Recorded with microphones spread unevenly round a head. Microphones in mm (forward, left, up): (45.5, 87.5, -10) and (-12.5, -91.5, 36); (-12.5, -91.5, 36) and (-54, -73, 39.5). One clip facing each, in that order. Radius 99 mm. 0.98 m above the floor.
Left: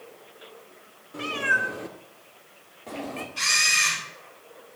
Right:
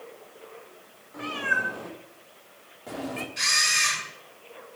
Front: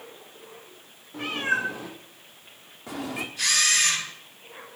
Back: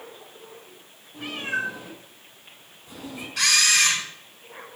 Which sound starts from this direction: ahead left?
A cat meowing, at 1.1 s.